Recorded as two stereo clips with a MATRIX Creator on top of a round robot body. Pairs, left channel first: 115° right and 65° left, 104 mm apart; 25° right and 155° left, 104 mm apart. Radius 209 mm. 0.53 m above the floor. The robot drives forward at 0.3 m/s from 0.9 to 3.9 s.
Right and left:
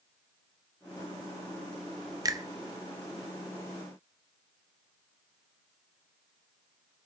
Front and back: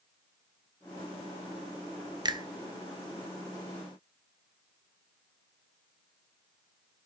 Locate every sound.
2.2 s a finger snap: 115° left, 0.9 m; by 2.5 s 120° left, 0.9 m